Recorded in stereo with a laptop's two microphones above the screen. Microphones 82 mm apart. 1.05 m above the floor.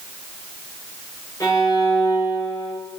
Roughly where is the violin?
Left.